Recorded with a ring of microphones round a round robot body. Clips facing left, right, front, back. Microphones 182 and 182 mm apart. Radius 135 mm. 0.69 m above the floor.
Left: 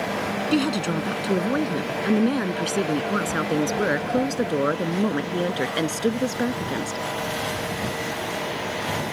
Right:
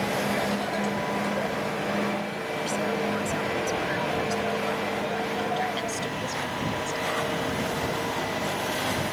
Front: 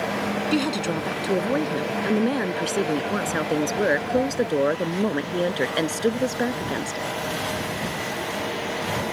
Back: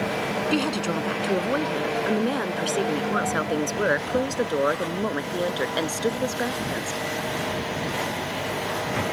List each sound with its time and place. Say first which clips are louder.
0.5 s a woman speaking: left 6 dB, front 1 dB; 85° left; by 7.1 s 65° left